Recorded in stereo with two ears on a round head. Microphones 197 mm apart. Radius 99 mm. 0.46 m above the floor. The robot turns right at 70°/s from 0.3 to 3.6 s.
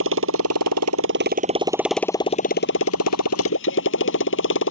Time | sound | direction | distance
0.0 | a motorcycle | 115° right | ?